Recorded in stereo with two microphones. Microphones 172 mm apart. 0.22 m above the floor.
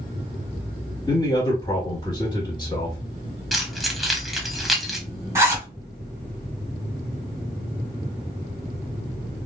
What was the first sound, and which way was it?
A man speaking, 25° left (ahead or behind).